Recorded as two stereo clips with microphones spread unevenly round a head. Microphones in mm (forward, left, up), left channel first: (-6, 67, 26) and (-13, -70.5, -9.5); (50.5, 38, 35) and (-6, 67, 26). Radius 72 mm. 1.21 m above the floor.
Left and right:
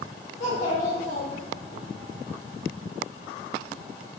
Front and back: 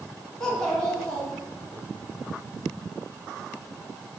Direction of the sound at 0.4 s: 50° left.